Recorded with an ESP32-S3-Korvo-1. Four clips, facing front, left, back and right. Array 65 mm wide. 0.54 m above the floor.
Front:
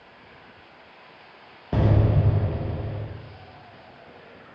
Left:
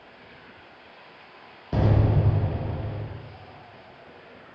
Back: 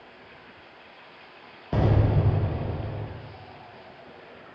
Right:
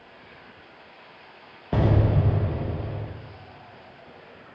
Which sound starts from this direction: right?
An explosion, at 1.7 s.